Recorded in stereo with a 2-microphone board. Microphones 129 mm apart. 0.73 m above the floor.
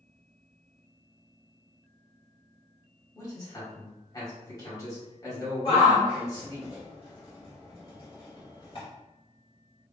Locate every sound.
3.1 s a man speaking: 30° left (ahead or behind), 1.8 m
5.7 s a shout: 45° left (ahead or behind), 2.0 m